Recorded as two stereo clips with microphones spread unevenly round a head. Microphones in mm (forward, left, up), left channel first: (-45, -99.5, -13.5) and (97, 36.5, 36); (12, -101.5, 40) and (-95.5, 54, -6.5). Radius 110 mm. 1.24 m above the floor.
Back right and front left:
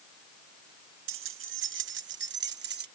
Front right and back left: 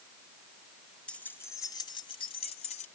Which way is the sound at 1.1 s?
30° left.